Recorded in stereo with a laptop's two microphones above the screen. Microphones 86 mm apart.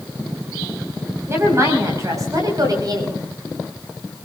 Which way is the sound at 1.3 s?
30° right (ahead or behind).